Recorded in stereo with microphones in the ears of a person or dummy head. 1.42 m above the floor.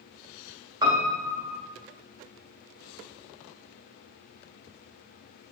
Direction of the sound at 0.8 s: 20° right (ahead or behind).